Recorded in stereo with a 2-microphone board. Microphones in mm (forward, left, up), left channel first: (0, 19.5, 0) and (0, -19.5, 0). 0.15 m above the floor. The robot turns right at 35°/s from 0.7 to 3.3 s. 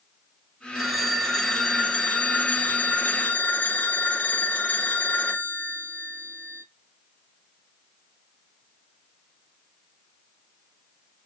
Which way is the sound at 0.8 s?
15° right.